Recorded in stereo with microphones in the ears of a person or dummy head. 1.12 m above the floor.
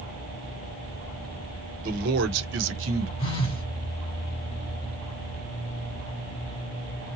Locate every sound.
1.8 s a man speaking: 50° right (ahead or behind), 1.1 m; by 3.1 s 75° right (ahead or behind), 1.1 m
3.2 s a phone buzzing: 35° left (ahead or behind), 1.3 m